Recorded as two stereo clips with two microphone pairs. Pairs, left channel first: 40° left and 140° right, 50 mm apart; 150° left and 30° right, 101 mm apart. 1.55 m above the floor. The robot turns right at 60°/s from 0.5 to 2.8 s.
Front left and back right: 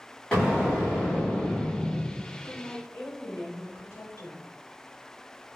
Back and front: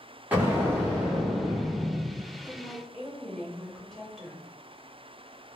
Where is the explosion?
Straight ahead, 1.2 m; by 2.2 s 100° left, 1.2 m.